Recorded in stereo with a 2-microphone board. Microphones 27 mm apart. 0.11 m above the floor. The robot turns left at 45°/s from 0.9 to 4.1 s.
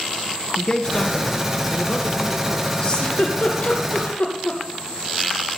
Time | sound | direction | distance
0.6 | a man speaking | 95° left | 1.5 m
2.8 | a giggle | 35° left (ahead or behind) | 3 m